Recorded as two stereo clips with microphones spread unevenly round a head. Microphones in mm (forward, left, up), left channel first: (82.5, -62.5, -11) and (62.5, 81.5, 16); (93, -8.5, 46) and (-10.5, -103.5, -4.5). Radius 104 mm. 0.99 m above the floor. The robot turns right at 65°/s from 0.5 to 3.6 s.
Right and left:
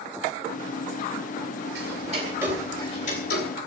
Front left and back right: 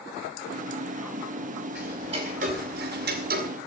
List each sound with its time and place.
1.8 s ticking: 135° left, 2.5 m; by 3.5 s 115° right, 2.5 m